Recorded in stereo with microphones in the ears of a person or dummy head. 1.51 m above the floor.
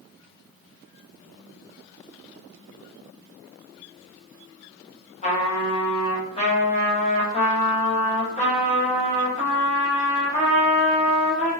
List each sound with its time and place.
5.2 s a trumpet: 40° left (ahead or behind), 1.0 m